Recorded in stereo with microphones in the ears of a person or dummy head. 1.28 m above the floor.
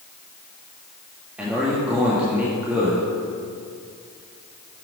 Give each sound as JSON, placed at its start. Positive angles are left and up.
{"t": 1.4, "sound": "a man speaking", "side_deg": -5, "distance_m": 1.7}